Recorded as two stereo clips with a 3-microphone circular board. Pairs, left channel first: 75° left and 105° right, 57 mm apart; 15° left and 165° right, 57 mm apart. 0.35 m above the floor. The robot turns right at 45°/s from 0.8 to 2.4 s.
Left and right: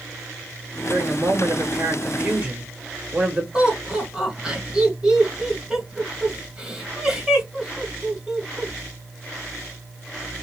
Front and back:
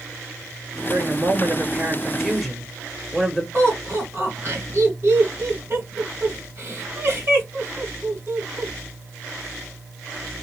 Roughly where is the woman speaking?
Behind right.